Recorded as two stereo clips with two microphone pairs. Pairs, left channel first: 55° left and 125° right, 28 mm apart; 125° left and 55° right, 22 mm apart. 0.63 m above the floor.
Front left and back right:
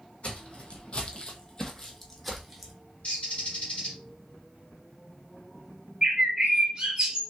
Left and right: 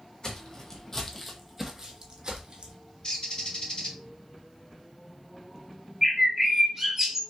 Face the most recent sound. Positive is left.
turn(degrees=-110)